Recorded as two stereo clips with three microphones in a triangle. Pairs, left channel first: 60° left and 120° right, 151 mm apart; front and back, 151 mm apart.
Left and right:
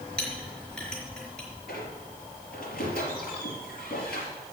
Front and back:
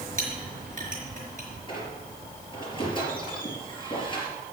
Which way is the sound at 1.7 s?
60° left.